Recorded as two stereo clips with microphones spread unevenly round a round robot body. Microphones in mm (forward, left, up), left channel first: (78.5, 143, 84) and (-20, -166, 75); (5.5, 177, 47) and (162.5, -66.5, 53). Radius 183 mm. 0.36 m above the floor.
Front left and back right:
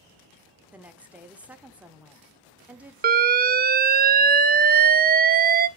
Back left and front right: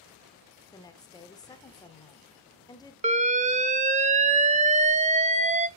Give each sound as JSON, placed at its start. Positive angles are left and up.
{"t": 0.7, "sound": "a woman speaking", "azimuth_deg": 175, "distance_m": 0.8}
{"t": 3.0, "sound": "an alarm", "azimuth_deg": -95, "distance_m": 0.5}